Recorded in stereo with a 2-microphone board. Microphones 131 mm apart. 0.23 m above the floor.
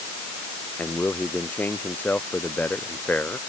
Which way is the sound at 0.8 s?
15° left (ahead or behind).